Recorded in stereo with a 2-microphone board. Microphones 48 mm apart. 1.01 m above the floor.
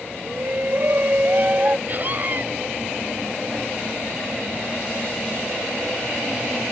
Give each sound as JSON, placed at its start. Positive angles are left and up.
{"t": 0.2, "sound": "a shout", "side_deg": -55}
{"t": 1.9, "sound": "a scream", "side_deg": -40}